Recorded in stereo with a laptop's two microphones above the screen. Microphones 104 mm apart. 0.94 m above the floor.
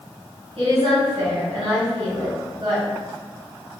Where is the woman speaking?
65° right (ahead or behind), 2.0 m.